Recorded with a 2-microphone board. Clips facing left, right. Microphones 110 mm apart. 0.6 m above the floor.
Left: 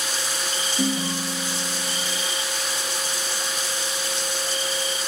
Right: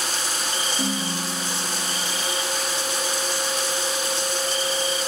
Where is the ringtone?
60° left (ahead or behind), 7.5 m.